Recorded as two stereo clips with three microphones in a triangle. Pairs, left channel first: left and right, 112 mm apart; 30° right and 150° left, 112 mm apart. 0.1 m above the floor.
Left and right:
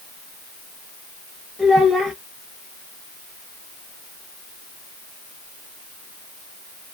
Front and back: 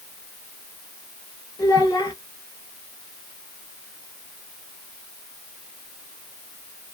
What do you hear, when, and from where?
1.6 s a child speaking: 15° right, 1.2 m